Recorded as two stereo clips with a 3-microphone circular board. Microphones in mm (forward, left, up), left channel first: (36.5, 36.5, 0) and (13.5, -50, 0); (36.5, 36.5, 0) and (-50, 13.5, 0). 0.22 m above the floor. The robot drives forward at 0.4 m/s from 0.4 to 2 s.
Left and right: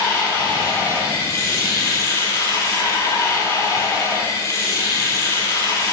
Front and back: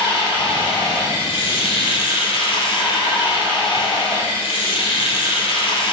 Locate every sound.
0.0 s running water: 15° left, 5 m; by 5.9 s 20° left, 4.5 m